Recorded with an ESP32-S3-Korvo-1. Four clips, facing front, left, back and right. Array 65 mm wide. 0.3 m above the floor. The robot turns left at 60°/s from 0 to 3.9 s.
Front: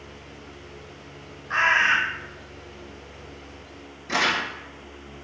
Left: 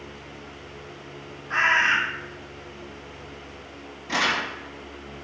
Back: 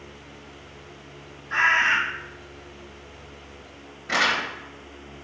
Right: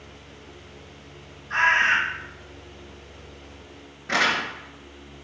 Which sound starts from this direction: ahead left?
A bird, at 1.5 s.